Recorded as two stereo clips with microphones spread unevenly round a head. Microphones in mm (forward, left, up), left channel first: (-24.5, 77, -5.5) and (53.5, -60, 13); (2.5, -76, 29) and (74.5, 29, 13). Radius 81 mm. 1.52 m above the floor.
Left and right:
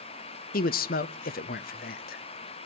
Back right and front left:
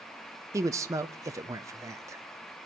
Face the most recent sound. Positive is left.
turn(degrees=115)